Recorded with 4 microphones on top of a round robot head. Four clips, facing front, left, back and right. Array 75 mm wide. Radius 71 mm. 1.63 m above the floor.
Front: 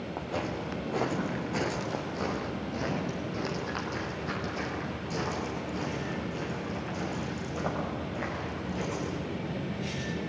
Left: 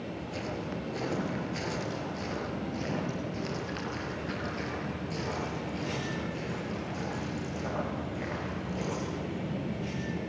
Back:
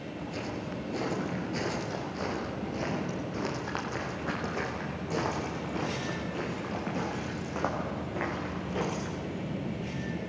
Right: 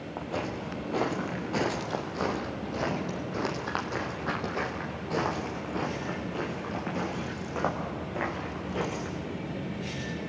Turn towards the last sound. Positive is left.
turn(degrees=-130)